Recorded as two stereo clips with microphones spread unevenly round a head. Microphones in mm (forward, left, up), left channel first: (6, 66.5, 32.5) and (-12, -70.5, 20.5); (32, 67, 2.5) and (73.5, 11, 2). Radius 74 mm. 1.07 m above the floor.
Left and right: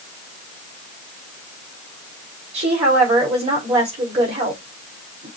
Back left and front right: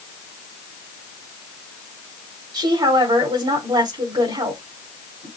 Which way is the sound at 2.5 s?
50° right.